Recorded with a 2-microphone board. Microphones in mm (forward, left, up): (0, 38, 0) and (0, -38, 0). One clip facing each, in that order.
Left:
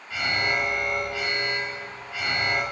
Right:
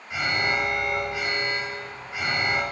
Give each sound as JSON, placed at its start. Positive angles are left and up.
{"t": 0.1, "sound": "an alarm", "side_deg": -20, "distance_m": 5.5}